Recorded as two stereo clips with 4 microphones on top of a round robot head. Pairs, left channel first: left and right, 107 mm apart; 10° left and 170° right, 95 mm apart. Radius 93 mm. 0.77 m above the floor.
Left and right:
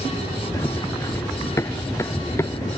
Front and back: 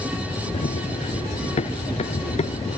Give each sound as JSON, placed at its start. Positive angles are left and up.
{"t": 0.5, "sound": "running footsteps", "azimuth_deg": 25}